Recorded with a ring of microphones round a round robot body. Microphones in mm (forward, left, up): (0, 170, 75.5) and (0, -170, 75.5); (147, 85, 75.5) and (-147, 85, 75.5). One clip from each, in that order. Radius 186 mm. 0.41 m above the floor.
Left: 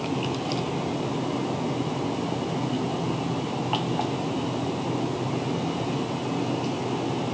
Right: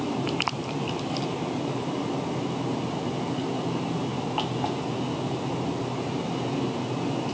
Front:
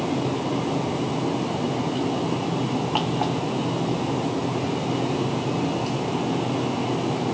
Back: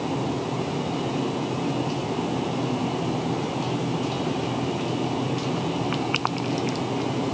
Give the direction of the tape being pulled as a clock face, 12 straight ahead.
I don't hear tape being pulled.